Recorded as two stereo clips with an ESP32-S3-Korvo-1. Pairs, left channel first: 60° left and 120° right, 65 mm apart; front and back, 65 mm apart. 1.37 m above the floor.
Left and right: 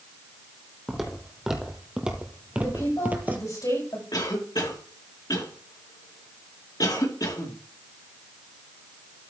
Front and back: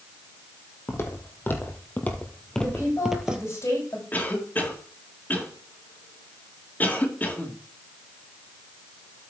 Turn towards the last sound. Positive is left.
turn(degrees=60)